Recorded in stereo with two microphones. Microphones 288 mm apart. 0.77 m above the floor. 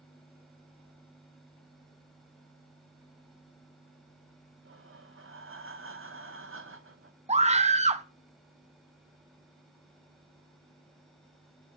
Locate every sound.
4.7 s breathing: 45° right (ahead or behind), 1.0 m
7.3 s a scream: 25° right (ahead or behind), 0.8 m